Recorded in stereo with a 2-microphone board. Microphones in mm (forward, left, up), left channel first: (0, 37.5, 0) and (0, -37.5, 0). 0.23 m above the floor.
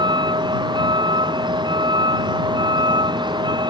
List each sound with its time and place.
0.0 s a vehicle: 70° right (ahead or behind)